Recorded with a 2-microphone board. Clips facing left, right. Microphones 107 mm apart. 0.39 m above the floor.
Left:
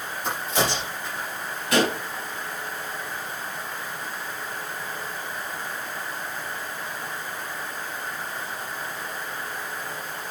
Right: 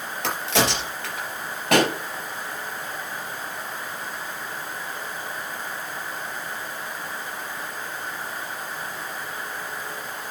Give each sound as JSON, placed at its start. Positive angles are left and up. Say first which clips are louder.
{"t": 0.2, "sound": "a crack", "louder": "right 2 dB", "side_deg": -85, "distance_m": 4.0}
{"t": 1.7, "sound": "a pop", "louder": "right 2 dB", "side_deg": -65, "distance_m": 3.0}